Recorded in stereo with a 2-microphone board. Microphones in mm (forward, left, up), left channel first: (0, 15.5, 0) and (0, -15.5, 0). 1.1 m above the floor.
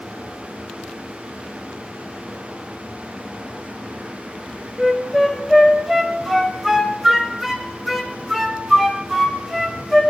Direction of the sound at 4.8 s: 5° right (ahead or behind).